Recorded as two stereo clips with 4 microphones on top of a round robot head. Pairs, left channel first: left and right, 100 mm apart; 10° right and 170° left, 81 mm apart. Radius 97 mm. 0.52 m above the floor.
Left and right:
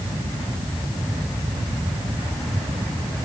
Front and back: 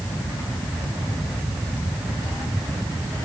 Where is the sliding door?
I don't hear a sliding door.